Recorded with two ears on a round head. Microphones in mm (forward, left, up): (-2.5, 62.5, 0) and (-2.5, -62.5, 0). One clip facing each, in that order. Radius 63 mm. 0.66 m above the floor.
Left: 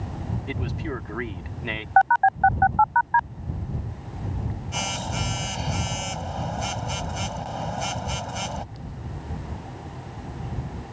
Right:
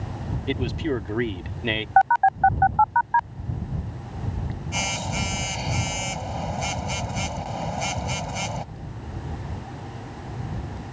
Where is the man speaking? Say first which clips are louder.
Right 8 dB; 30° right (ahead or behind).